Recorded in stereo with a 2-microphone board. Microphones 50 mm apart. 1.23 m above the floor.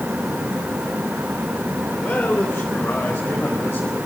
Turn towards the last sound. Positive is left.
turn(degrees=40)  # may be behind; listen again after turning